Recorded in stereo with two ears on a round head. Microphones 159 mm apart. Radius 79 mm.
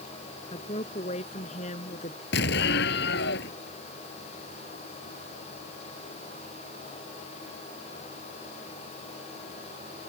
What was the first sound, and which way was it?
A woman speaking, 35° left (ahead or behind).